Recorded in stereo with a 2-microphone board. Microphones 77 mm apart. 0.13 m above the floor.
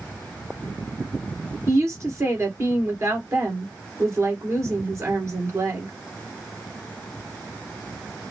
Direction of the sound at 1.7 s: 40° right (ahead or behind).